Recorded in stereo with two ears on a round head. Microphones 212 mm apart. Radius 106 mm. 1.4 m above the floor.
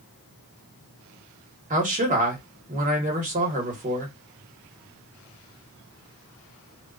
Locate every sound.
1.7 s a man speaking: 35° right (ahead or behind), 1.2 m